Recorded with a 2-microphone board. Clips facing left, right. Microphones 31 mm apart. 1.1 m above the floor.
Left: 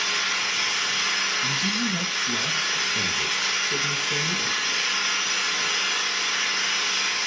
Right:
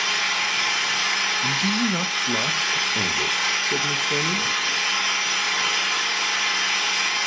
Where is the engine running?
65° right (ahead or behind), 2 m.